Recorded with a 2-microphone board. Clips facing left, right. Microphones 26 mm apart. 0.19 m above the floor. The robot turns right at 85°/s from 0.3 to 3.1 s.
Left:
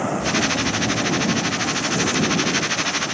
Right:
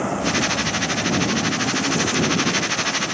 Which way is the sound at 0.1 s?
110° left.